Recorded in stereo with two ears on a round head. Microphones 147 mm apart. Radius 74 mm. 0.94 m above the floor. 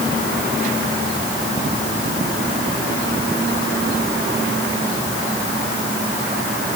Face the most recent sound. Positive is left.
No sound to turn to.